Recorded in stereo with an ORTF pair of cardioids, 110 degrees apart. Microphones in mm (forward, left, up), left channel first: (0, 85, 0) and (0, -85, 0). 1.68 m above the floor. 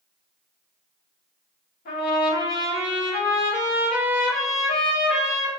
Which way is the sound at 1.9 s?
60° left.